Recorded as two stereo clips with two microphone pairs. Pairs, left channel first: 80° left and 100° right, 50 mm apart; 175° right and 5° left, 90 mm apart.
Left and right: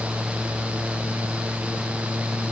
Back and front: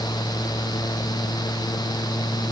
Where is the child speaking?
No child speaking in this recording.